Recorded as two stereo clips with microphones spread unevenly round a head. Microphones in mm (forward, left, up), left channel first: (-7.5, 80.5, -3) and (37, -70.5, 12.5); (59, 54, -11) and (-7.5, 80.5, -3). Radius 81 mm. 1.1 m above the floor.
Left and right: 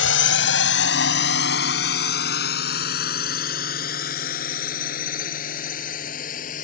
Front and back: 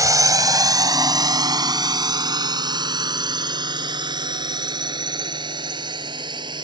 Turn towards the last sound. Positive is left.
turn(degrees=150)